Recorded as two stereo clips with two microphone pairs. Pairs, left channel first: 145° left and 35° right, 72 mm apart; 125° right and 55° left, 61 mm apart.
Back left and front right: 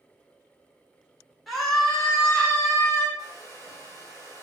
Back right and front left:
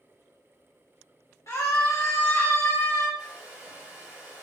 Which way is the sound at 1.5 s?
125° right.